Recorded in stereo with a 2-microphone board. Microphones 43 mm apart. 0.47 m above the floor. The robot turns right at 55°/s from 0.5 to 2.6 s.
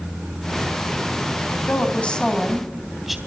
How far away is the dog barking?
No dog barking in this recording.